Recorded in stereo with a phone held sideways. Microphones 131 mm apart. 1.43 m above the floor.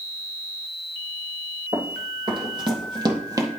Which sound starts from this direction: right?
Running footsteps, at 1.7 s.